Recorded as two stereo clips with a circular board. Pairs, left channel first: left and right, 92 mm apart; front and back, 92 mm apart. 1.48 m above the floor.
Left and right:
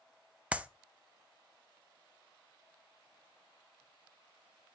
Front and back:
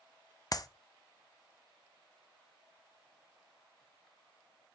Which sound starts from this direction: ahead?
A clap, at 0.5 s.